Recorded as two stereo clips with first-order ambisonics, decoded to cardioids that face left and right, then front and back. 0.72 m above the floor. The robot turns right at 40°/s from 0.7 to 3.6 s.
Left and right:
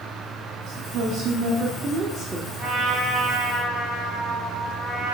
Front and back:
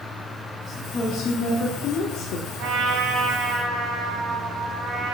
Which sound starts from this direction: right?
A woman speaking, at 0.7 s.